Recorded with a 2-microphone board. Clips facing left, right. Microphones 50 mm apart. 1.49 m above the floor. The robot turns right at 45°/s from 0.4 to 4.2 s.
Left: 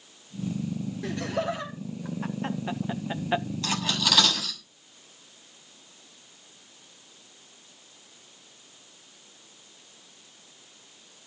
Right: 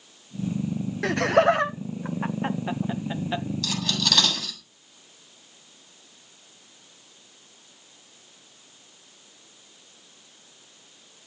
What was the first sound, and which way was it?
Laughter, 80° right.